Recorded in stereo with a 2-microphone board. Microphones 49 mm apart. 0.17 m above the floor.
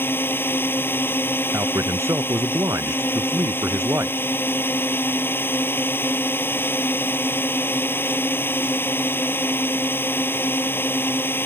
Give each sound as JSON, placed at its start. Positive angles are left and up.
{"t": 0.0, "sound": "a drone", "side_deg": 50}
{"t": 1.5, "sound": "a man speaking", "side_deg": -75}